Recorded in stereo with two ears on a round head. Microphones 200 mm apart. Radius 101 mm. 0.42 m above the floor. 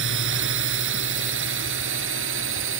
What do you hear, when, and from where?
0.0 s a drone: 55° right (ahead or behind); by 2.8 s 60° right (ahead or behind)